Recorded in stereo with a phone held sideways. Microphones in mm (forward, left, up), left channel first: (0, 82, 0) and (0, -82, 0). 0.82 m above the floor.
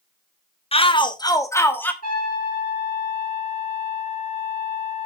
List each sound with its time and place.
0.7 s a shout: 35° left (ahead or behind), 1.0 m; by 1.9 s 10° left (ahead or behind), 1.3 m
2.0 s a trumpet: 60° left (ahead or behind), 8.5 m